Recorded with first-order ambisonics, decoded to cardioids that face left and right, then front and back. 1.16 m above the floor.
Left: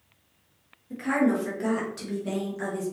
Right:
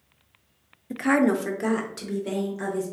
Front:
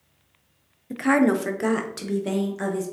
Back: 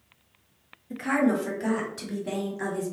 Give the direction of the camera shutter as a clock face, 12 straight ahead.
No camera shutter in this recording.